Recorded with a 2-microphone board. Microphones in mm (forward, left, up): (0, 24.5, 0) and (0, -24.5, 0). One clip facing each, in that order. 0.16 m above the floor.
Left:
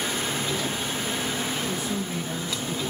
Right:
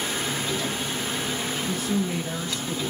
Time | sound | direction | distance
1.7 | a woman speaking | 55° right (ahead or behind) | 2.5 m